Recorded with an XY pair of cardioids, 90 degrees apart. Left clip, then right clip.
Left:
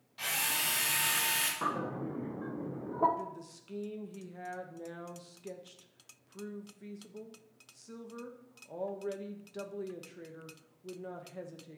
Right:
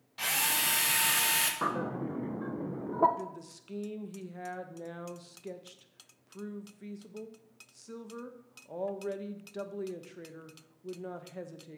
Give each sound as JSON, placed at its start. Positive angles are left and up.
{"t": 0.2, "sound": "a drill", "azimuth_deg": -40, "distance_m": 2.0}
{"t": 1.6, "sound": "a bird", "azimuth_deg": -30, "distance_m": 1.4}
{"t": 3.2, "sound": "a woman speaking", "azimuth_deg": -20, "distance_m": 1.5}